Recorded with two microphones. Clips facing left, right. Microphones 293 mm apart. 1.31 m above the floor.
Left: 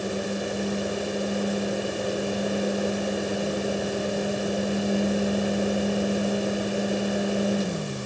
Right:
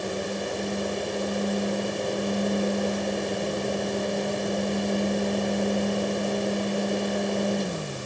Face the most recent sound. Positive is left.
No sound to turn to.